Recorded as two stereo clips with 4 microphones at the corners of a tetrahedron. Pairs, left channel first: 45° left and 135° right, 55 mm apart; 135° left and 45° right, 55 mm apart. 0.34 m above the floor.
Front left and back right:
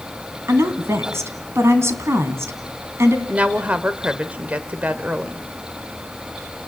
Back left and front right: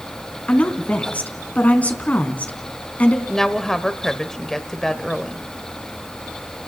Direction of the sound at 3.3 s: 155° right.